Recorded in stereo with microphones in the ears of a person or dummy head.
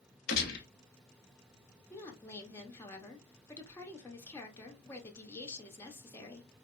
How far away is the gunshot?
About 0.7 m.